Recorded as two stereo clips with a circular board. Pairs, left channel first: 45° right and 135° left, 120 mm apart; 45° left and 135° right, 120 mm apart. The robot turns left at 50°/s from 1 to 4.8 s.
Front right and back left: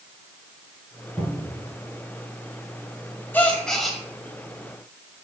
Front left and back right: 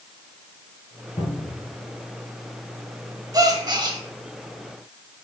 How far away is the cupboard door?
About 2.5 m.